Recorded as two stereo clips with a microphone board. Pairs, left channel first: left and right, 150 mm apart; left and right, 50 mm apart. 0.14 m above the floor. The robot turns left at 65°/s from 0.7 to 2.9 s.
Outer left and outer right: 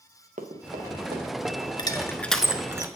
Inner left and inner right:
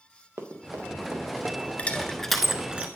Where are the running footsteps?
60° right (ahead or behind), 1.4 m; by 1.7 s centre (ahead or behind), 2 m.